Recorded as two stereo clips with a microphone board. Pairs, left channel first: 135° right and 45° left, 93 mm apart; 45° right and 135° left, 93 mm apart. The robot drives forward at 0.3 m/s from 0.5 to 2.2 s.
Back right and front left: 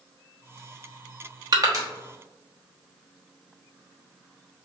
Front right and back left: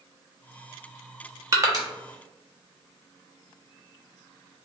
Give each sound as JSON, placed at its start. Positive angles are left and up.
{"t": 1.5, "sound": "crushing", "azimuth_deg": 85, "distance_m": 0.8}